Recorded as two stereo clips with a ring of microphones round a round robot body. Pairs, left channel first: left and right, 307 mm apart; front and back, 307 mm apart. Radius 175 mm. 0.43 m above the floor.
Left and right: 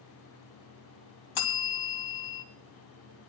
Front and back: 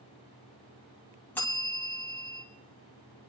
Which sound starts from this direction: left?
A bell, at 1.4 s.